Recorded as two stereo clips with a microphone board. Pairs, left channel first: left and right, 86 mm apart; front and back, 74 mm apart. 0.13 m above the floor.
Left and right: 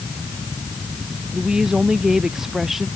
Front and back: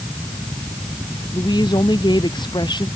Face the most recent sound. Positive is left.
turn(degrees=-5)